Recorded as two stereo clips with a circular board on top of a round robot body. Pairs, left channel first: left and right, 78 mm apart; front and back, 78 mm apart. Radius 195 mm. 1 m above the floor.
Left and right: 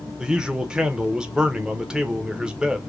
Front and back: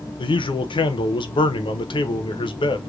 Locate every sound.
0.2 s a man speaking: 10° right, 0.5 m